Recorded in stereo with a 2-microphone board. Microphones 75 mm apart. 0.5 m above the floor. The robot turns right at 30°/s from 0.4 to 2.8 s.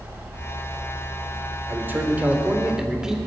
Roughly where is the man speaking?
Ahead right.